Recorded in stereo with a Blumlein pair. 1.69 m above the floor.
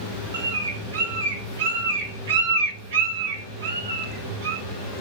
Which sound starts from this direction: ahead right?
A bird, at 0.3 s.